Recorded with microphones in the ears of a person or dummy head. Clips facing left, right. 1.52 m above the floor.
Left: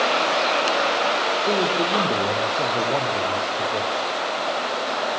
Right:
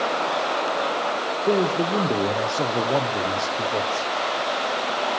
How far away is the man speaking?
About 1.2 m.